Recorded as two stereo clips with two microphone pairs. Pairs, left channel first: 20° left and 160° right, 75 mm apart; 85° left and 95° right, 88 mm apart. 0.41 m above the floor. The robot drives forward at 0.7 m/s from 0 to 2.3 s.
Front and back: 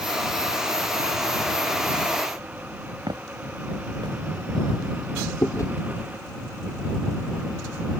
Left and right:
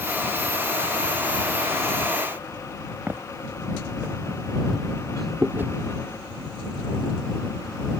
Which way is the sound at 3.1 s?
160° right.